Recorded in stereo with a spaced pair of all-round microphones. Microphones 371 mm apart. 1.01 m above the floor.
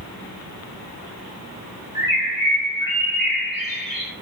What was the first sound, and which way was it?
A bird, 60° left (ahead or behind).